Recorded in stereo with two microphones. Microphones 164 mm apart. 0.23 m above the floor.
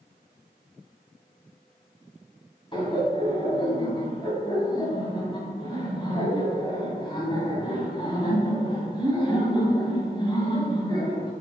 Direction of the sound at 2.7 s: 30° left (ahead or behind).